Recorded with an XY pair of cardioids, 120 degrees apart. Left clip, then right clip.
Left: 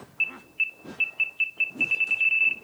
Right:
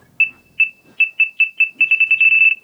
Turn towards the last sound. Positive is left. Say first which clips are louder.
# right 11 dB
turn(degrees=-55)